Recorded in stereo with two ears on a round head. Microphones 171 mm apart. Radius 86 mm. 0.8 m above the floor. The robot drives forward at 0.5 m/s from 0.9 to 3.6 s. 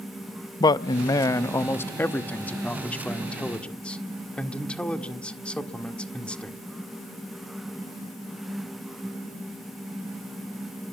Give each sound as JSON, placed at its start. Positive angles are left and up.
{"t": 0.6, "sound": "a man speaking", "side_deg": 20, "distance_m": 0.5}